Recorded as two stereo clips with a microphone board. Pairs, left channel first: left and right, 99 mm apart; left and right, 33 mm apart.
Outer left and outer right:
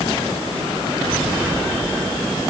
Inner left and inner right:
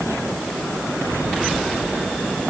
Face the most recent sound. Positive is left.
No sound to turn to.